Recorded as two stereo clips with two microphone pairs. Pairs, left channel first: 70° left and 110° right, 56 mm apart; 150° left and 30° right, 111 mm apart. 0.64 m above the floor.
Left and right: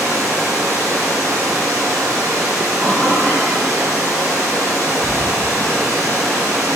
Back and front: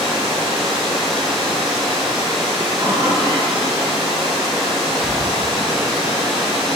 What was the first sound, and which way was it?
Running water, 125° right.